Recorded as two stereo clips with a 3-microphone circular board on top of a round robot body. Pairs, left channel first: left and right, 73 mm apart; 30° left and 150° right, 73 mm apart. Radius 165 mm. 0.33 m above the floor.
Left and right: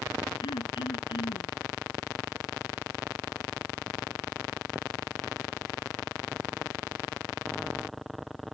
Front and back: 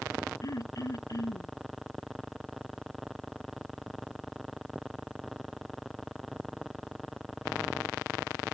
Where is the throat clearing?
75° left.